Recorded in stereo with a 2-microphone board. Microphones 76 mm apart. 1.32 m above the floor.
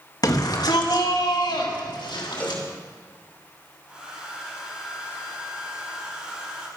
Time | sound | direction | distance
0.2 | a shout | 55° left (ahead or behind) | 1.8 m
2.4 | a cowbell | 20° left (ahead or behind) | 1.8 m
3.9 | a hair dryer | 15° right (ahead or behind) | 4 m